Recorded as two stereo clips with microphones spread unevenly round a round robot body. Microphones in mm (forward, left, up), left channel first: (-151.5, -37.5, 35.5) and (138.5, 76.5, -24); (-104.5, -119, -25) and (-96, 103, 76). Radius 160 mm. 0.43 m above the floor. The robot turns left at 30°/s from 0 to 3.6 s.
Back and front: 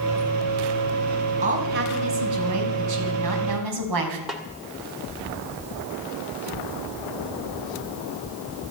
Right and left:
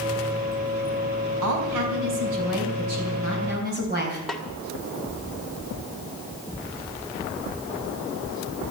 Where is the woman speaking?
85° left, 3.5 m; by 4.2 s 20° left, 3.5 m.